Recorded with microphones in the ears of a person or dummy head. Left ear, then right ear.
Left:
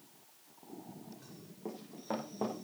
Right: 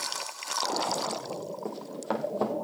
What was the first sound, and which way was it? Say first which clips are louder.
Running footsteps: right 5 dB; 50° right (ahead or behind).